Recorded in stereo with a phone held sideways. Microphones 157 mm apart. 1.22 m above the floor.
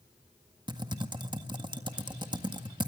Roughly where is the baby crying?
I don't hear a baby crying.